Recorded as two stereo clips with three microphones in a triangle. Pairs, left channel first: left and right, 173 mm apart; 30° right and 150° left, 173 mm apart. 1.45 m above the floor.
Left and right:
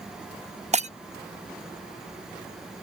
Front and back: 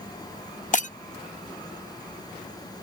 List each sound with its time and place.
0.7 s breaking glass: 55° right